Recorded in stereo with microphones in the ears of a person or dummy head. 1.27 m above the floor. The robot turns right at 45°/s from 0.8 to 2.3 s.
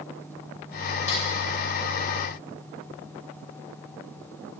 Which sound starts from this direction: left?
A snare drum, at 1.1 s.